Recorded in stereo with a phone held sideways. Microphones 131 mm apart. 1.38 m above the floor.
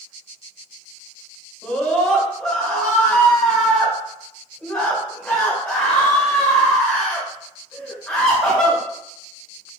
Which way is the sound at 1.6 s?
5° left (ahead or behind).